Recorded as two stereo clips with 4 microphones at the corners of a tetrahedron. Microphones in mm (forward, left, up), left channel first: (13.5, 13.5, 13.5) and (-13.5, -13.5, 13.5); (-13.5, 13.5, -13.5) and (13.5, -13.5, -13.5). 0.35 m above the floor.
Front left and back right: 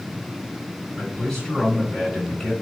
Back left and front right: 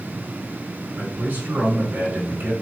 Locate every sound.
1.0 s a man speaking: 35° right, 4.5 m